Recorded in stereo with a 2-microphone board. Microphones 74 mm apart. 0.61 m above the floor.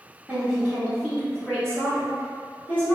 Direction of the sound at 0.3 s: 15° right (ahead or behind).